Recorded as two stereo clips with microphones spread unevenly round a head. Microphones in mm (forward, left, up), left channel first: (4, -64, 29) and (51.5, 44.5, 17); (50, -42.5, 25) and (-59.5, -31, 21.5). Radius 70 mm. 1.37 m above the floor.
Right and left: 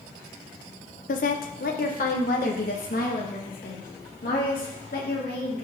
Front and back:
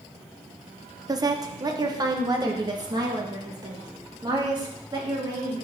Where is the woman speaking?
135° right, 1.0 m.